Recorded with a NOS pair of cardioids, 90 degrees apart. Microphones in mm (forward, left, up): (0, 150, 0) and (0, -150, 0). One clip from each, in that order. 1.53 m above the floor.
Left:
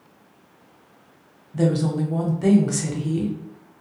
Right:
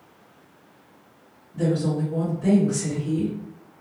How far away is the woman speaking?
About 1.1 m.